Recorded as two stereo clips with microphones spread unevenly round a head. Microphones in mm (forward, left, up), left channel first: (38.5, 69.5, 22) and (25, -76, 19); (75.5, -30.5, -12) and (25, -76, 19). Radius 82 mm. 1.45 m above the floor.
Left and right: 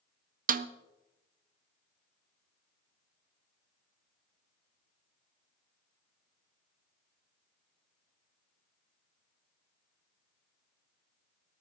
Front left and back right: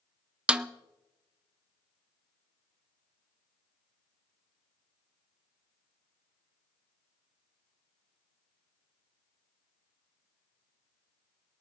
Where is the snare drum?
65° right, 0.7 m.